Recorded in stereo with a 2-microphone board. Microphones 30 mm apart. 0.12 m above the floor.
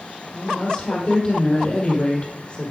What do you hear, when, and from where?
0.3 s a woman speaking: 35° left (ahead or behind), 4 m